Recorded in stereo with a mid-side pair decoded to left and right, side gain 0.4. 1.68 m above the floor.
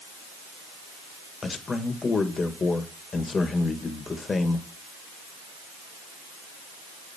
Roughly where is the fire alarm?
No fire alarm in this recording.